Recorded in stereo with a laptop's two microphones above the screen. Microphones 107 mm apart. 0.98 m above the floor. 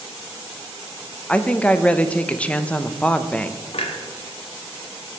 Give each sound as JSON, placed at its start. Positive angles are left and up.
{"t": 1.3, "sound": "a woman speaking", "side_deg": 10, "distance_m": 0.5}
{"t": 3.7, "sound": "a clunk", "side_deg": 65, "distance_m": 1.1}